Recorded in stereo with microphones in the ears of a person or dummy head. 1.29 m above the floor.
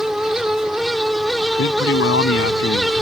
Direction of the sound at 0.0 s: 5° left (ahead or behind).